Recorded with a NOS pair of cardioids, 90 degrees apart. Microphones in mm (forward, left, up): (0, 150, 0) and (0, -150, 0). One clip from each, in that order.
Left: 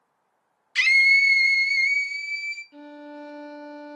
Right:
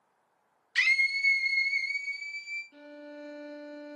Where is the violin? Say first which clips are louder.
Left 5 dB; 15° left, 0.7 m.